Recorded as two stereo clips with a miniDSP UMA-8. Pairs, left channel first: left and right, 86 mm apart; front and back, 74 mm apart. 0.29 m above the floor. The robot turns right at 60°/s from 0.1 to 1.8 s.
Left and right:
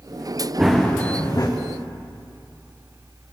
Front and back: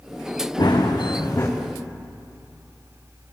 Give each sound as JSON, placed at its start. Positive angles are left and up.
{"t": 0.6, "sound": "running footsteps", "azimuth_deg": -5, "distance_m": 1.7}